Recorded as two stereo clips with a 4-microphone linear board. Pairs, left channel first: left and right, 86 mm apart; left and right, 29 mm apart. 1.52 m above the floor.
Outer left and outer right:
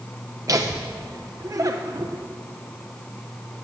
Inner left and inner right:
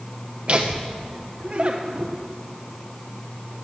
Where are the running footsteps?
I don't hear running footsteps.